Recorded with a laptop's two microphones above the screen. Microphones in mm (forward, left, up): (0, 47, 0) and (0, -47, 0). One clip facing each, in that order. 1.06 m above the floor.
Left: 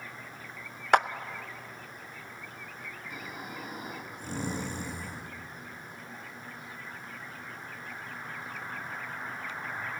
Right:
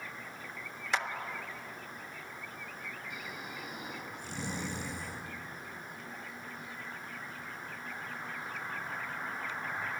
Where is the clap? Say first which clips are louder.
Left 11 dB; 60° left (ahead or behind), 0.7 m.